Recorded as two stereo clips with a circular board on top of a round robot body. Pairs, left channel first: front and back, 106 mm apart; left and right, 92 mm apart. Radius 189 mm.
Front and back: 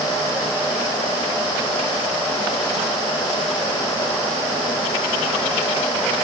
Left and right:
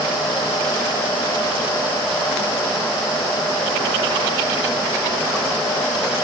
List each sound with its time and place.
Only background noise.